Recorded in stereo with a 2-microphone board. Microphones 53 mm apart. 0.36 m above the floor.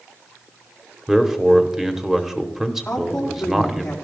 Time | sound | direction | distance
1.1 | a man speaking | 10° right (ahead or behind) | 1.0 m
2.9 | a woman speaking | 15° left (ahead or behind) | 5 m